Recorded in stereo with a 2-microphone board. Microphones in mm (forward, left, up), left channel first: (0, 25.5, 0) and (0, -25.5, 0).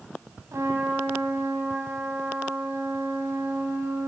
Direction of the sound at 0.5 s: 75° right (ahead or behind).